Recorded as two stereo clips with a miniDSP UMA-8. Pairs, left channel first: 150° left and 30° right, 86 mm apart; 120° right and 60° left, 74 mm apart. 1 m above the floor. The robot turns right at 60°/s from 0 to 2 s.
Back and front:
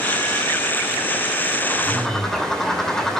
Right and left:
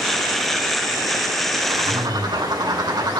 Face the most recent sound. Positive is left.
turn(degrees=65)